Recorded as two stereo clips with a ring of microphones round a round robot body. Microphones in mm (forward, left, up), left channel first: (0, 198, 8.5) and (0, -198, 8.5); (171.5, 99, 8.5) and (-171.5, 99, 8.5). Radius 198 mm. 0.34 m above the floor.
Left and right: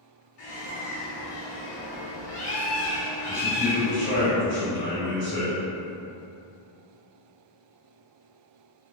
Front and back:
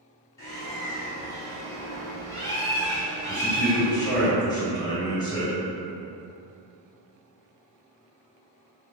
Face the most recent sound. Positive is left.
turn(degrees=70)